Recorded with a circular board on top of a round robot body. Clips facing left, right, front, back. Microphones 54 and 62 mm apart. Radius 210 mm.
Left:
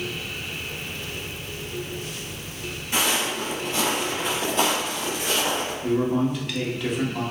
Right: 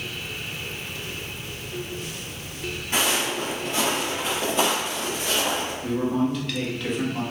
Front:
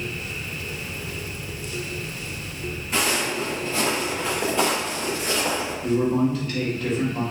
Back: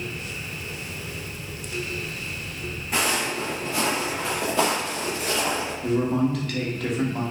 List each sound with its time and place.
2.9 s footsteps: 150° right, 2.0 m; by 5.7 s 155° left, 0.9 m
5.8 s a man speaking: 175° left, 1.2 m